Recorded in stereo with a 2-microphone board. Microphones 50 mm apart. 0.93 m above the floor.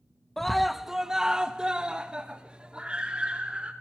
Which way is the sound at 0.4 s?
5° left (ahead or behind).